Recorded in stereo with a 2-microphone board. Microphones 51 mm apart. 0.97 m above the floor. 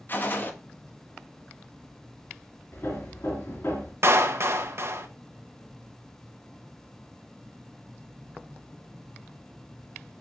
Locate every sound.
0.1 s a gunshot: 40° left (ahead or behind), 1.2 m
2.7 s hammering: 55° left (ahead or behind), 3.5 m
4.0 s a clap: 55° right (ahead or behind), 0.9 m